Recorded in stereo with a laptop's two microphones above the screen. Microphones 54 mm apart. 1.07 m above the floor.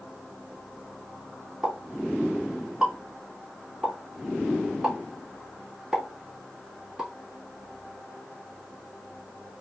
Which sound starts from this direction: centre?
A pop, at 1.6 s.